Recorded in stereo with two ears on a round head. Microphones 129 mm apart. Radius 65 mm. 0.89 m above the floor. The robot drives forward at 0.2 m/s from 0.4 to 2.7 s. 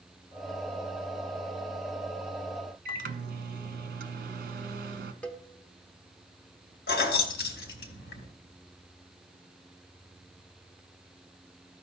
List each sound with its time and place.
2.9 s a microwave: 65° right (ahead or behind), 0.7 m
5.2 s a cowbell: 10° left (ahead or behind), 0.8 m
6.9 s keys jangling: 85° left, 1.2 m